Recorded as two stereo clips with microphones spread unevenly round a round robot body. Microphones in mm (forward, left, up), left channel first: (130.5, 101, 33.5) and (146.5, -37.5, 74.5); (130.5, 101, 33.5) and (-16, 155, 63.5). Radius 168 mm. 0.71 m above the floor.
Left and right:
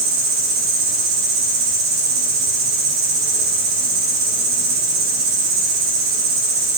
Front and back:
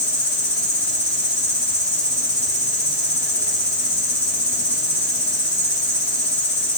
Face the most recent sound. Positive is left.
turn(degrees=-110)